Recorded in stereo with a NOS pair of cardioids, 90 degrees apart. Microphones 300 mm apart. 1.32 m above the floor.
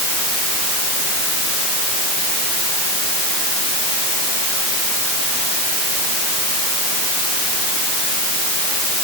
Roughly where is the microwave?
I don't hear a microwave.